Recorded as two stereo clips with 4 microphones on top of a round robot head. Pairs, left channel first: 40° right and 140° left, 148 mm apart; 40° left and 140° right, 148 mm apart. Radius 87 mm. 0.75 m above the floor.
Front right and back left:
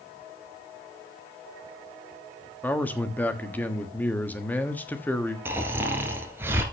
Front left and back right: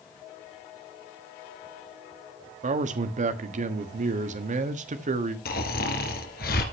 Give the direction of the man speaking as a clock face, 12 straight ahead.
4 o'clock.